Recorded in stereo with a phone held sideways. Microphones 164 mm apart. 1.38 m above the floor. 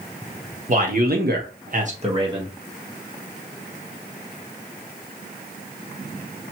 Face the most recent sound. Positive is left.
turn(degrees=-20)  # may be behind; listen again after turning